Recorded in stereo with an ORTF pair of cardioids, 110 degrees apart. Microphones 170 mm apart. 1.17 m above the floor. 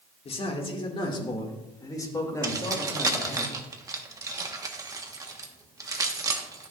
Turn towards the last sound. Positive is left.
turn(degrees=-20)